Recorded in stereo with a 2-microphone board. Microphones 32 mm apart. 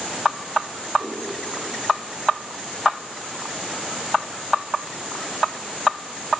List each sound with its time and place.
1.0 s a whoosh: 60° right (ahead or behind), 7 m